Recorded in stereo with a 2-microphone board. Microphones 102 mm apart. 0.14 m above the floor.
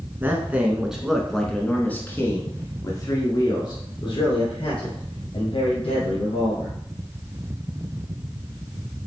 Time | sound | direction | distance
0.2 | a man speaking | 20° right (ahead or behind) | 1.6 m